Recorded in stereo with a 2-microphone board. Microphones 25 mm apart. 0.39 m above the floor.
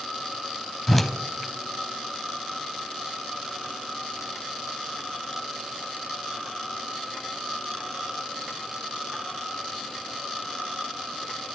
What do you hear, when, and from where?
0.9 s a whoosh: 10° left (ahead or behind), 0.6 m